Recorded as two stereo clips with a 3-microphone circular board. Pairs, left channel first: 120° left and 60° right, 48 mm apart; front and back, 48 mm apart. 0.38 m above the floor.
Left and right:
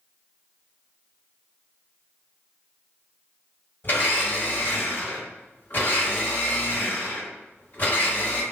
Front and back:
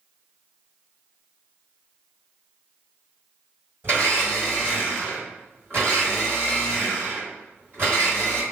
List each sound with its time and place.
3.8 s a blender: 145° left, 2.0 m